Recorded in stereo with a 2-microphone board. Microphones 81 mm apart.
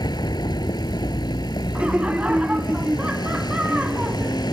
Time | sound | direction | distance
0.0 | a vehicle | 60° left (ahead or behind) | ?
1.8 | laughter | 15° right (ahead or behind) | ?